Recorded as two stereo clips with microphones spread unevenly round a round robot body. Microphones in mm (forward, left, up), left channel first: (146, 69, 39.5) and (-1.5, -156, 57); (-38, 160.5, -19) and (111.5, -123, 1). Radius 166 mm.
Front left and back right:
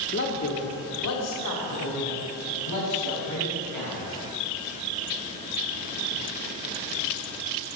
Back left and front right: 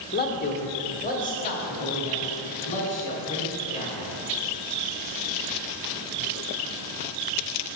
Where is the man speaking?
75° left, 1.0 m; by 4.1 s 50° left, 5 m.